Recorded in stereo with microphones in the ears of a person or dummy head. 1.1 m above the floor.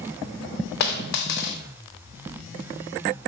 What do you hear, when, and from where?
0.8 s a dropped coin: 60° left (ahead or behind), 0.8 m